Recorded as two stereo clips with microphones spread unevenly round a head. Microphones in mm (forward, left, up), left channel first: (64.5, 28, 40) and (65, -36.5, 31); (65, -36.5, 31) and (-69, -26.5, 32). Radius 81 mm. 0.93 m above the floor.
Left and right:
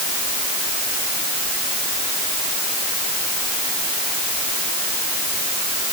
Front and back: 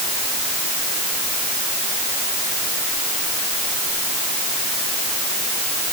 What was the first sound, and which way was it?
Only background noise.